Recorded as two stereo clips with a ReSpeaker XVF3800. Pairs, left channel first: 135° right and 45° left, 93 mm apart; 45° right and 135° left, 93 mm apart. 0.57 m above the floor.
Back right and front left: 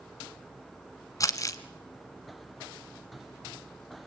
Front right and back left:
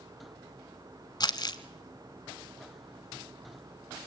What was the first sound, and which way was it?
Crumpling, 85° right.